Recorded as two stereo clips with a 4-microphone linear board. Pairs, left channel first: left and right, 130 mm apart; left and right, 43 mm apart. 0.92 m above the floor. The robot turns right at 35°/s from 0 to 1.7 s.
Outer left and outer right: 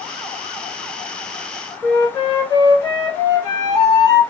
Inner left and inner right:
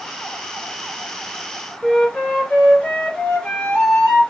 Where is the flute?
25° left (ahead or behind), 1.7 m.